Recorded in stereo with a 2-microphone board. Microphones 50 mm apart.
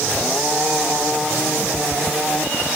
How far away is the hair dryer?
No hair dryer in this recording.